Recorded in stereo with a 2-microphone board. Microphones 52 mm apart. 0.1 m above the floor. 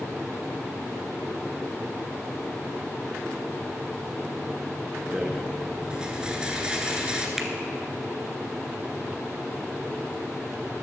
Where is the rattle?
15° right (ahead or behind), 1.5 m.